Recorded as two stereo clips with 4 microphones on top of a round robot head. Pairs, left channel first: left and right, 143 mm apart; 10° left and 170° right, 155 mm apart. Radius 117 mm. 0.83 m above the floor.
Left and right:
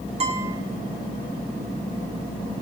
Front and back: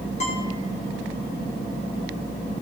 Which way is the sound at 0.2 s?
40° right.